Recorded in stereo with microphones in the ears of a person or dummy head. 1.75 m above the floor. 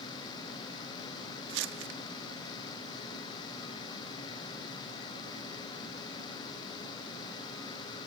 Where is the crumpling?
70° right (ahead or behind).